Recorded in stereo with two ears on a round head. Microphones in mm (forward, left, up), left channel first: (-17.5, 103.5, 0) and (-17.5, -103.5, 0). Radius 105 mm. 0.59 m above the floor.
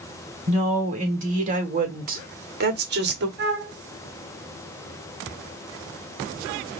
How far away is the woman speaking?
About 2.5 m.